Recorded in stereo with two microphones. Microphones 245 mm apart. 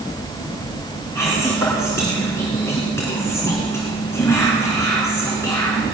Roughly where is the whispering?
Centre.